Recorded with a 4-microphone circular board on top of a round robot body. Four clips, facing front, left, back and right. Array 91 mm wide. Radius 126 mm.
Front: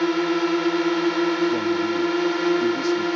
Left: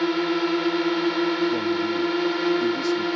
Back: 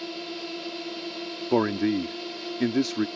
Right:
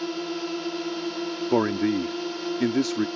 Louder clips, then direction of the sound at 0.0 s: Left 8 dB, front 15 dB; 30° left.